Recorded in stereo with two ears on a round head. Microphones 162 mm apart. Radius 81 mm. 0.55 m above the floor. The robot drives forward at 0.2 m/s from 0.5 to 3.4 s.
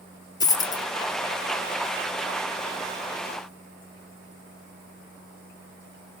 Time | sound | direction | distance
0.4 | a dropped coin | 20° left (ahead or behind) | 0.5 m